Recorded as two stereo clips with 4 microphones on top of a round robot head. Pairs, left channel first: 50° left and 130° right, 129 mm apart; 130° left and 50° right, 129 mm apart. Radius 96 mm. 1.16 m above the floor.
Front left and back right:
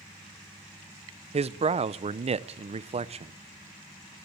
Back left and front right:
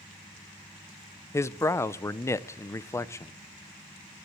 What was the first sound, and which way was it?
A man speaking, 160° right.